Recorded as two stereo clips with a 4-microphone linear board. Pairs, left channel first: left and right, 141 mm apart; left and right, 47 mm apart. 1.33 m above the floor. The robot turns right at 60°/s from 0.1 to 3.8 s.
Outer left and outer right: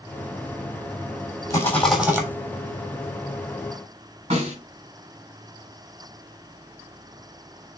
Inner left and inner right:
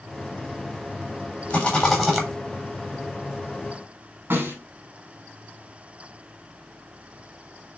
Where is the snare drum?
50° right (ahead or behind), 6 m.